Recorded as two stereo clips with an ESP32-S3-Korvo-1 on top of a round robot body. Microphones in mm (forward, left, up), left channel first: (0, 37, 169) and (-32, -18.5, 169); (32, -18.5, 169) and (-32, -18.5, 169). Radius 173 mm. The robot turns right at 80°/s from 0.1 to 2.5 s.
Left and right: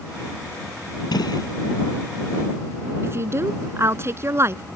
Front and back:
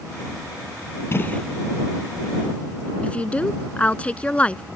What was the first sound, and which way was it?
A gunshot, 55° left.